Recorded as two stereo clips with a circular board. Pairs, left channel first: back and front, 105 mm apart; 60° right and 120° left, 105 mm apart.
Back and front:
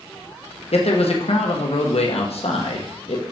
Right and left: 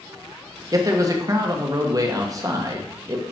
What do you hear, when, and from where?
0.7 s a man speaking: 175° left, 1.1 m